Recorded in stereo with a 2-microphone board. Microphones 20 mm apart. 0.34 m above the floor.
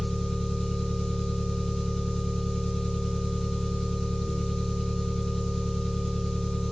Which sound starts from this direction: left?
An engine running, at 0.0 s.